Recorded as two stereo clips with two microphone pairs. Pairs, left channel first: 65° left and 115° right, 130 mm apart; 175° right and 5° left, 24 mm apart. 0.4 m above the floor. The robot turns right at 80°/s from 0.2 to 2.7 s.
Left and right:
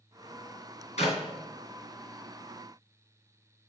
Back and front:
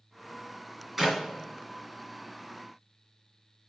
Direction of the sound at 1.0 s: 85° left.